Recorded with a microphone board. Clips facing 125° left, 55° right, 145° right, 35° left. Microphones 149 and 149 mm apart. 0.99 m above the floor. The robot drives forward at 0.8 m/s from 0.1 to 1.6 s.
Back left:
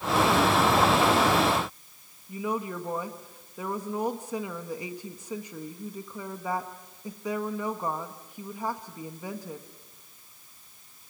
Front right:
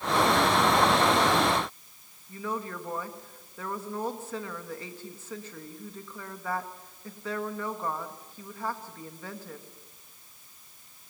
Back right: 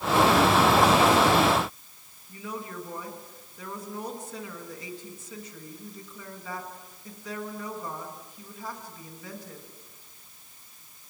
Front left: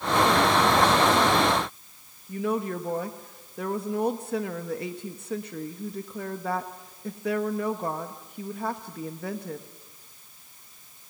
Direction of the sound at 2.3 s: 50° left.